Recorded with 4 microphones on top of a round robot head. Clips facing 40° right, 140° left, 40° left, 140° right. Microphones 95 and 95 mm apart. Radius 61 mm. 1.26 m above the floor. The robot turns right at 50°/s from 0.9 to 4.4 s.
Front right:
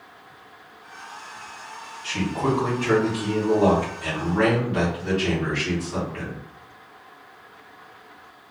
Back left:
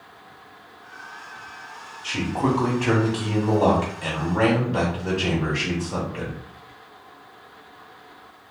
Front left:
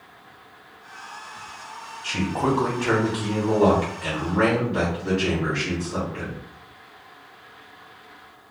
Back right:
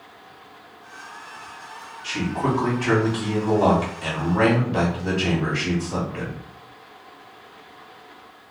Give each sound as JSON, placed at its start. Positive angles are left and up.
{"t": 2.0, "sound": "a man speaking", "azimuth_deg": 75, "distance_m": 1.3}